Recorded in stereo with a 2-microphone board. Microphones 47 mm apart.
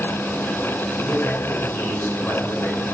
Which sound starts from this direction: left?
A man speaking, at 1.0 s.